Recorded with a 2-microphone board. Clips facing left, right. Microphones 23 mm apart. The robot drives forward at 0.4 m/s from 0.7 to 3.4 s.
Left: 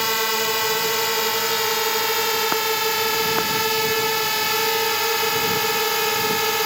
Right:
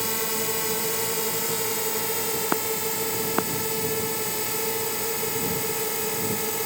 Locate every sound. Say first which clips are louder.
0.0 s a drone: left 7 dB; 45° left (ahead or behind); by 6.7 s 55° left (ahead or behind)